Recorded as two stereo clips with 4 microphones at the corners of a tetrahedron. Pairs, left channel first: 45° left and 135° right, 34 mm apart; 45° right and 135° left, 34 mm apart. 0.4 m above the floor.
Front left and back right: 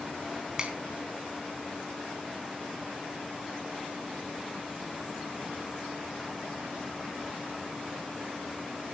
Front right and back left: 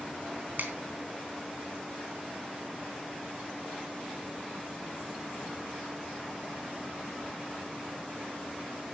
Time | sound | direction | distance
0.6 | a finger snap | 160° left | 3.5 m